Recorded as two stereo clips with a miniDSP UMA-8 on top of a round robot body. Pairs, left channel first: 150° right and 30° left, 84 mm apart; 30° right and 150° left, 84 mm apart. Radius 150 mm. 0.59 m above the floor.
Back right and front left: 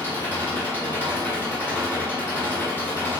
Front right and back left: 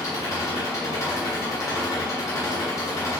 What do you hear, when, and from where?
0.0 s an engine running: 85° right, 3 m